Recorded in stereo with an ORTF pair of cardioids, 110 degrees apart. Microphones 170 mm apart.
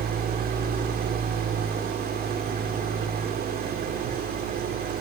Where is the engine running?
65° right, 3.5 m.